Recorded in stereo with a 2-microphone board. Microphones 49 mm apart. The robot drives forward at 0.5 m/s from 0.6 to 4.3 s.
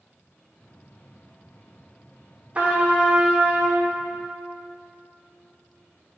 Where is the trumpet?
30° right (ahead or behind), 1.3 m; by 3.9 s 20° right (ahead or behind), 1.7 m.